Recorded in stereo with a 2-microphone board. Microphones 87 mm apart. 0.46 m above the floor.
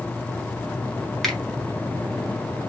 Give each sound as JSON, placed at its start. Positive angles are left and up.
{"t": 1.2, "sound": "a finger snap", "side_deg": 0, "distance_m": 1.5}